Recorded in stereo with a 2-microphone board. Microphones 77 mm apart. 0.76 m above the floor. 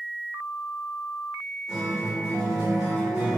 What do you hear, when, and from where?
1.7 s a guitar: 10° right (ahead or behind), 1.0 m